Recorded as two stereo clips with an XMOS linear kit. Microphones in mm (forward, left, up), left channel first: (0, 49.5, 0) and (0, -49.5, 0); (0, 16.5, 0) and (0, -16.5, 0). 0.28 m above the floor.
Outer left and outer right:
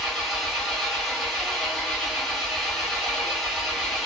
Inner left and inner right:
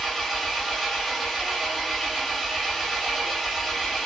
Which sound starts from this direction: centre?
An engine running, at 0.0 s.